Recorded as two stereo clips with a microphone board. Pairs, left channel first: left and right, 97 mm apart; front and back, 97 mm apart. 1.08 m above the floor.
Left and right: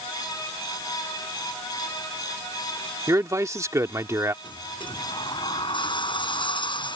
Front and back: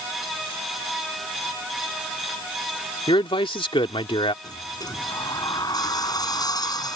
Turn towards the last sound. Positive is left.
turn(degrees=50)